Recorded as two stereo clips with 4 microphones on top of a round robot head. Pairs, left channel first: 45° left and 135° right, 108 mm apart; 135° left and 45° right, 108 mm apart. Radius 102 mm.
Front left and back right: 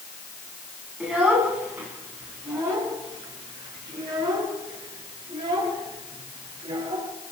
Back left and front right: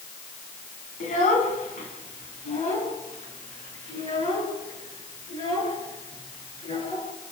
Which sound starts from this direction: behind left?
A child speaking, at 1.0 s.